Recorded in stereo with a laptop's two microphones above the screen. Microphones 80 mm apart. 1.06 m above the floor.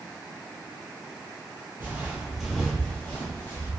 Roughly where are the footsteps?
Right.